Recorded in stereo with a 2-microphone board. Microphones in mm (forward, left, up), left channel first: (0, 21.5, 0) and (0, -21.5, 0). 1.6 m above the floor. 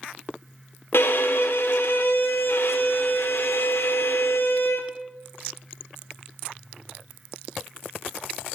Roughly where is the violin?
Left.